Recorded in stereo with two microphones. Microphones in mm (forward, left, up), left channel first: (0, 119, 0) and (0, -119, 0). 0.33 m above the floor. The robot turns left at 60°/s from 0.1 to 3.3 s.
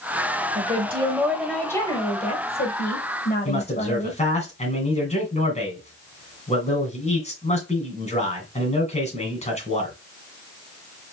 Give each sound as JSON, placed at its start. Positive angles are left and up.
{"t": 0.6, "sound": "a woman speaking", "azimuth_deg": -125, "distance_m": 1.3}
{"t": 3.5, "sound": "a man speaking", "side_deg": 30, "distance_m": 2.5}